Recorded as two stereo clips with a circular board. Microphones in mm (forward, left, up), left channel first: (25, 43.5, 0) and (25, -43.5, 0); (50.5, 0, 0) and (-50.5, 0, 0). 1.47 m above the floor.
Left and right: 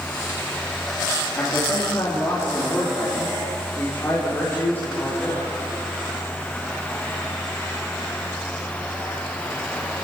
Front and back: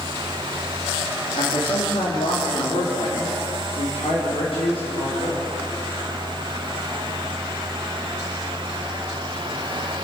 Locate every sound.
1.4 s a man speaking: 30° left, 3.5 m; by 5.6 s 20° left, 5.5 m